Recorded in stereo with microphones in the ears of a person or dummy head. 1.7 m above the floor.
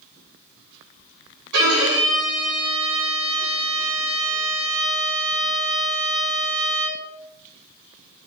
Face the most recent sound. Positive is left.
turn(degrees=-70)  # may be behind; listen again after turning